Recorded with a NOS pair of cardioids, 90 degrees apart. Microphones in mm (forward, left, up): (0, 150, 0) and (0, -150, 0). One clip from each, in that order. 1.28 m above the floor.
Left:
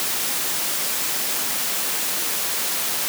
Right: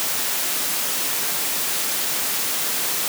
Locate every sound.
Only background noise.